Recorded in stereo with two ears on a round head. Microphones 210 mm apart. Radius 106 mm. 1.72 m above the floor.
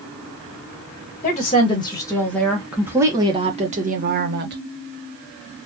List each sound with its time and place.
1.2 s a woman speaking: 30° left (ahead or behind), 1.4 m; by 4.6 s 50° right (ahead or behind), 1.4 m